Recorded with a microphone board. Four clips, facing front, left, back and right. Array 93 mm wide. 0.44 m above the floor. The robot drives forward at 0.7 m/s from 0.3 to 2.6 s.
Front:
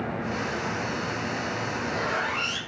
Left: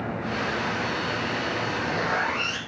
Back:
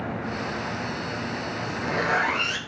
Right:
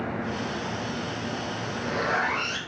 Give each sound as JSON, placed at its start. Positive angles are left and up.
{"t": 1.6, "sound": "a zipper", "azimuth_deg": 180, "distance_m": 5.0}